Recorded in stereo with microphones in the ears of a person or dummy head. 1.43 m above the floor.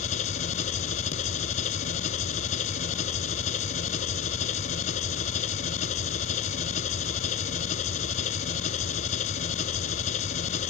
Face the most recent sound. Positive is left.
turn(degrees=45)  # may be behind; listen again after turning